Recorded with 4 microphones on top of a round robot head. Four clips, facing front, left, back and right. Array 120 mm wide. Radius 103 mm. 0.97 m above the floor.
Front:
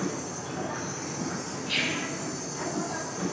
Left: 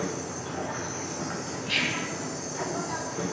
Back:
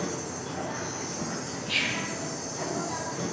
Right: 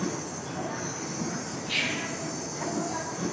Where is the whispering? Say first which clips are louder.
Left 2 dB, front 1 dB; 85° left, 7 m.